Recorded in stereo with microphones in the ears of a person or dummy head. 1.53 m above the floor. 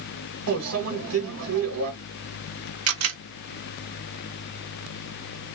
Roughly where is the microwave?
Right.